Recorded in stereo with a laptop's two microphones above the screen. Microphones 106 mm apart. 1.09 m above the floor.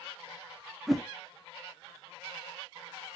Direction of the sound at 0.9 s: Centre (ahead or behind).